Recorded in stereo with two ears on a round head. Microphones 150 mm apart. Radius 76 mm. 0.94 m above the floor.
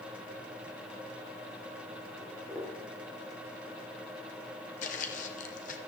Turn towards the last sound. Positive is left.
turn(degrees=50)  # may be behind; listen again after turning